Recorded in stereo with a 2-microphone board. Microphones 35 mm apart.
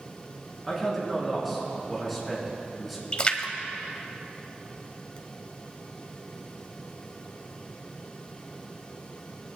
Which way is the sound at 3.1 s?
30° left (ahead or behind).